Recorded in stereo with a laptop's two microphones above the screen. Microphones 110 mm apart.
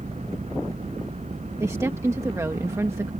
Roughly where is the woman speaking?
Right.